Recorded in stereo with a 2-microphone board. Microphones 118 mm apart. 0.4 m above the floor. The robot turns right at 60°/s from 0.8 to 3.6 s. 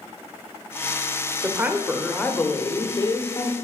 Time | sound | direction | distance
1.4 | a woman speaking | 35° right | 0.9 m